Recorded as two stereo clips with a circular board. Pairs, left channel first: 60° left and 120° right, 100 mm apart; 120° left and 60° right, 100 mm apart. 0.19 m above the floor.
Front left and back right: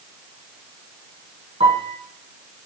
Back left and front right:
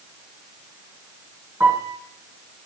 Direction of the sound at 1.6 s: 130° right.